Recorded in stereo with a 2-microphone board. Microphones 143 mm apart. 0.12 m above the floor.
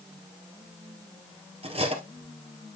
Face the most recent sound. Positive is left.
turn(degrees=-45)  # may be behind; listen again after turning